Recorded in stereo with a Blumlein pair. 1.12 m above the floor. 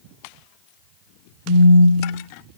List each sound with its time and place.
1.5 s a phone buzzing: 20° left, 0.7 m